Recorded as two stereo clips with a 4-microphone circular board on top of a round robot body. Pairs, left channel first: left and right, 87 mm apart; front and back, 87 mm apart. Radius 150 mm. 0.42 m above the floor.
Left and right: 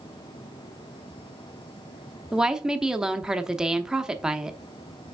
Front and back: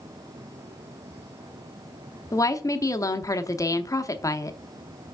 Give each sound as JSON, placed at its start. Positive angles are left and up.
{"t": 2.3, "sound": "a woman speaking", "azimuth_deg": -10, "distance_m": 1.0}